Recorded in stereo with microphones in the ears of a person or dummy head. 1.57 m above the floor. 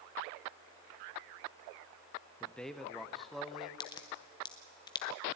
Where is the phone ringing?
I don't hear a phone ringing.